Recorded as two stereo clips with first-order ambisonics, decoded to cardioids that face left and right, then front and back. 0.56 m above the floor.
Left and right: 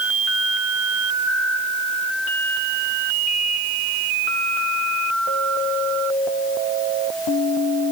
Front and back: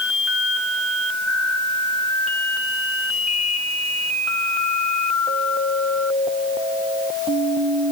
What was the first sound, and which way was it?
Only background noise.